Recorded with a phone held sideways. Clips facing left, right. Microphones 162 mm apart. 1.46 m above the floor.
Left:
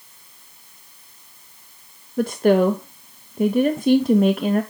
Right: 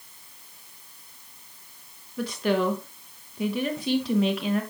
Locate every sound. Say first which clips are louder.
2.2 s a woman speaking: left 8 dB; 50° left (ahead or behind), 0.5 m